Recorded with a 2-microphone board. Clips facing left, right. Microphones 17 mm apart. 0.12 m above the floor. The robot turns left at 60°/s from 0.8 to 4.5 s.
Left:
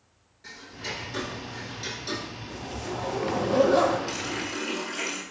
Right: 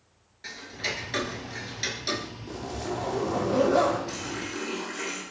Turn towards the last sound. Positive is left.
turn(degrees=60)  # may be behind; listen again after turning